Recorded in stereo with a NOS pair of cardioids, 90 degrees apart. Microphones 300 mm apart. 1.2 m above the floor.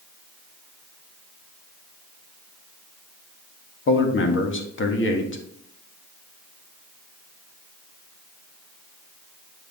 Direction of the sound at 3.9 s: 40° left.